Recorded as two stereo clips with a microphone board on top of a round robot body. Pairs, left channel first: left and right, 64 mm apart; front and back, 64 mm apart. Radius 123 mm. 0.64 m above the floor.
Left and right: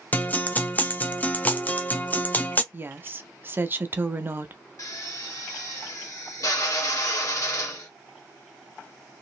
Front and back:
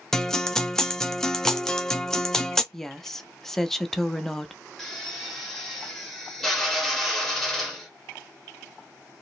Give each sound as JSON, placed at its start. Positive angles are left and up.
{"t": 0.1, "sound": "a guitar", "azimuth_deg": 70, "distance_m": 0.8}
{"t": 2.7, "sound": "a woman speaking", "azimuth_deg": -80, "distance_m": 0.8}
{"t": 4.8, "sound": "a drill", "azimuth_deg": 80, "distance_m": 1.6}